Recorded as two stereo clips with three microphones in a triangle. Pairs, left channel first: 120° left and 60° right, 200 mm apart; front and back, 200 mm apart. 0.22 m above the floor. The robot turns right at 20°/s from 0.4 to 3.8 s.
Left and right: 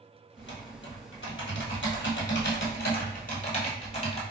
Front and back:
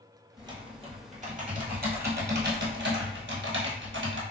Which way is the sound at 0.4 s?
110° left.